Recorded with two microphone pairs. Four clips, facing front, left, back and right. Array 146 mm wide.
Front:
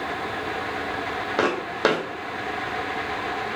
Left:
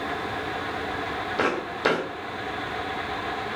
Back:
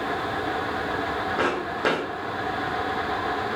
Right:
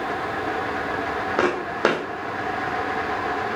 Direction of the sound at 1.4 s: 65° right.